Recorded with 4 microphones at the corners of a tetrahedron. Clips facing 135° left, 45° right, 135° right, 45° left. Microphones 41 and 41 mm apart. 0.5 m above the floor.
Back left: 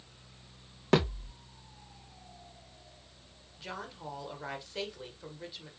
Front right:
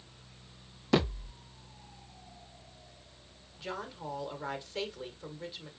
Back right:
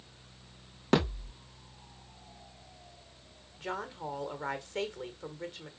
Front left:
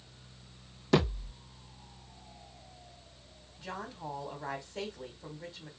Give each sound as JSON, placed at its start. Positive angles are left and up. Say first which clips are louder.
{"t": 0.9, "sound": "a thud", "louder": "back left 1 dB, even", "azimuth_deg": 180, "distance_m": 3.5}
{"t": 3.6, "sound": "a woman speaking", "louder": "front right 2 dB, back right 3 dB", "azimuth_deg": -135, "distance_m": 1.6}